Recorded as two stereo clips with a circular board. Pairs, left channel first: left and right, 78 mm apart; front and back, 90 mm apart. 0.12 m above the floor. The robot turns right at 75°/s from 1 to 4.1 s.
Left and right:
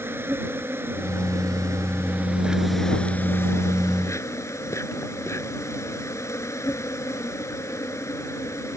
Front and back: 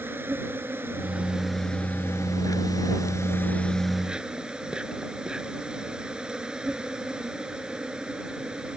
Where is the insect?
130° right; by 8.8 s 105° left.